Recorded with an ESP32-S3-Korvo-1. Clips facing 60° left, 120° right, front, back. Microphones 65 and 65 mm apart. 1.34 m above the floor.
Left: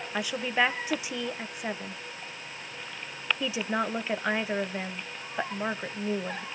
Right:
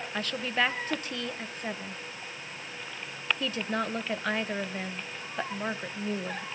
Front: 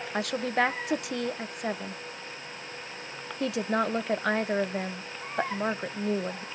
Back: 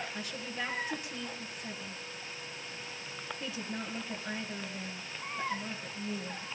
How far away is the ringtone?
I don't hear a ringtone.